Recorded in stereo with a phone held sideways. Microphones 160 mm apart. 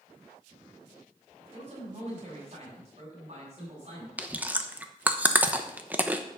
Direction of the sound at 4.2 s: 10° right (ahead or behind).